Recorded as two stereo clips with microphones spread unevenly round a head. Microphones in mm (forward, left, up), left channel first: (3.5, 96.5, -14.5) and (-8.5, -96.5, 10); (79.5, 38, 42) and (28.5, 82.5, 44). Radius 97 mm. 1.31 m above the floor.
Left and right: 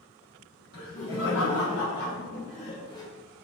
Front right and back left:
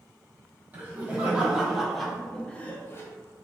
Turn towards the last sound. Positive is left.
turn(degrees=10)